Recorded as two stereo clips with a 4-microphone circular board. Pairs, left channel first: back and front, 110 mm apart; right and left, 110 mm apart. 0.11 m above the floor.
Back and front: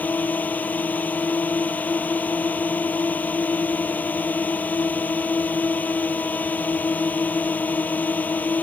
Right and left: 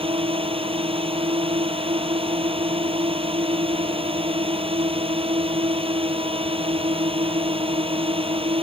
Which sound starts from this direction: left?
A drone, at 0.0 s.